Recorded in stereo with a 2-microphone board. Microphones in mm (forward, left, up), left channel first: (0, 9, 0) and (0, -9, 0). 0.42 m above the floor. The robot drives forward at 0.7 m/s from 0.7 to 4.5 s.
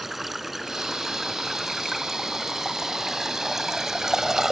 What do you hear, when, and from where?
0.0 s running water: 10° right (ahead or behind); by 4.5 s 30° right (ahead or behind)